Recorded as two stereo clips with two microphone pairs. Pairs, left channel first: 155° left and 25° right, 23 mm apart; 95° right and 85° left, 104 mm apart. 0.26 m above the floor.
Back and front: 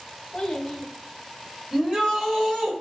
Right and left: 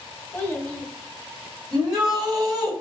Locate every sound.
0.3 s a child speaking: 160° right, 0.8 m
1.7 s a shout: 15° left, 1.0 m